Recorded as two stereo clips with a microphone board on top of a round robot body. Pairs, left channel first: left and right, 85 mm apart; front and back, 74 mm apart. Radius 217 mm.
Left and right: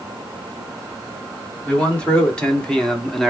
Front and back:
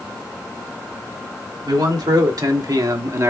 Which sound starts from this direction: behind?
A man speaking, at 1.7 s.